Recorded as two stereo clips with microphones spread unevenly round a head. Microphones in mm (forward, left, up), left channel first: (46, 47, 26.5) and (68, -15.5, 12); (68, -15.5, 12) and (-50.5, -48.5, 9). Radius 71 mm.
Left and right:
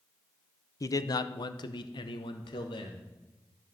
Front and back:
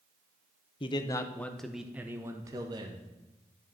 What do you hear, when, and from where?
0.8 s a man speaking: 70° left, 0.9 m; by 3.1 s 135° left, 1.6 m